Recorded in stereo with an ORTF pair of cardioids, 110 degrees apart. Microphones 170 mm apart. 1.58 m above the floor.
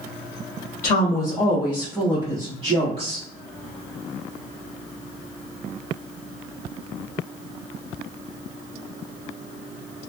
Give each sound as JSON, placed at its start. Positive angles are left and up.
{"t": 0.8, "sound": "a woman speaking", "azimuth_deg": 45, "distance_m": 0.9}